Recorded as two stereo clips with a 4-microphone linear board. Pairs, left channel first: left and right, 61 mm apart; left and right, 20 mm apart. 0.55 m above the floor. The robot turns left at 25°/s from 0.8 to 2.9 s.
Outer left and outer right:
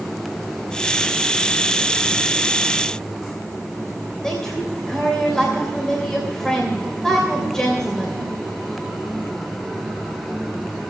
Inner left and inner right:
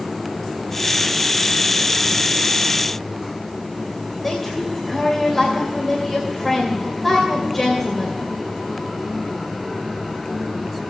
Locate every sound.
4.2 s a woman speaking: 10° left (ahead or behind), 2.5 m